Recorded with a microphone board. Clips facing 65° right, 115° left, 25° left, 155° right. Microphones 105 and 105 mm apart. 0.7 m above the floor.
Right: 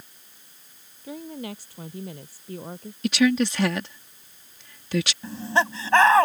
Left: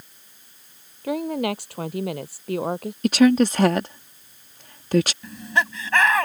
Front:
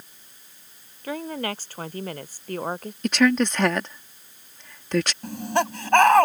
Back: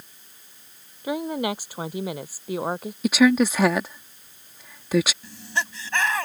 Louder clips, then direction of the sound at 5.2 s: Right 1 dB, front 7 dB; 10° right.